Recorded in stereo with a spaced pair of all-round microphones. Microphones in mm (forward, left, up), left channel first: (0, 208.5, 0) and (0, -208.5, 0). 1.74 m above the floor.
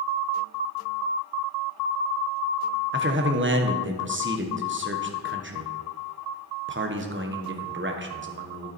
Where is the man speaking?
25° right (ahead or behind), 1.2 m.